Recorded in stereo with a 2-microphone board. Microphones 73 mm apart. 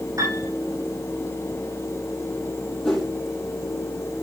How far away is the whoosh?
About 5 m.